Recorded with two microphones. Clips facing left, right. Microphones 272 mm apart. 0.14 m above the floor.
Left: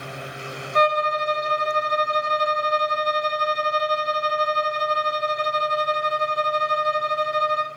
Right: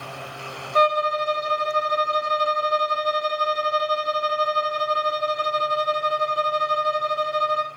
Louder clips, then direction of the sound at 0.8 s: Right 1 dB; 35° right (ahead or behind).